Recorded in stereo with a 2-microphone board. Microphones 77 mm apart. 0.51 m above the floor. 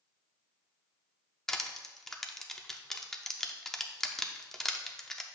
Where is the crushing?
5° left (ahead or behind), 0.6 m.